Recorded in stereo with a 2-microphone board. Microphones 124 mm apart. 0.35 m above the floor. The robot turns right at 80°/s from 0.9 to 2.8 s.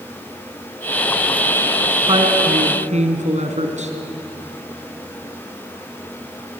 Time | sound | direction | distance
2.1 | a woman speaking | 140° right | 3 m